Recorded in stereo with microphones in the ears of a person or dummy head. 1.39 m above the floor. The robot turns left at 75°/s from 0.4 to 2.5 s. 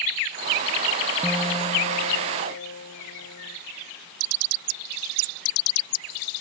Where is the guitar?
175° left; by 3.6 s 80° left.